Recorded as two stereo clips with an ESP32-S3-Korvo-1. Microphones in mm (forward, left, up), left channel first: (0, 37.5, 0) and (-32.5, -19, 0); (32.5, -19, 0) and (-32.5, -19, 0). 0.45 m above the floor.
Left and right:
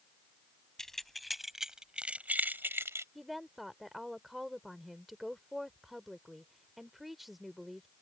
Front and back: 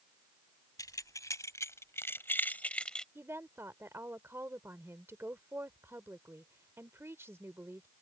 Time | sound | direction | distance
0.8 | keys jangling | 25° right | ?
3.1 | a woman speaking | 150° left | ?